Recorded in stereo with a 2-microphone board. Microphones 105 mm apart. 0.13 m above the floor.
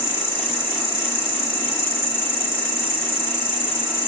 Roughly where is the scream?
I don't hear a scream.